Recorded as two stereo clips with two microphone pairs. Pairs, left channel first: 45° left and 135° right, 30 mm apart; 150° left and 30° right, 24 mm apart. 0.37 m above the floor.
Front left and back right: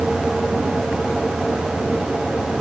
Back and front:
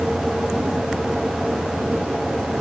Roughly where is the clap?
I don't hear a clap.